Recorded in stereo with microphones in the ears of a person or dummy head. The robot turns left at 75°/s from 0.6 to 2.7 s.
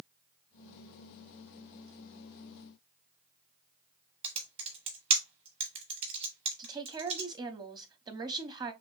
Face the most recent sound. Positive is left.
turn(degrees=-20)  # may be behind; listen again after turning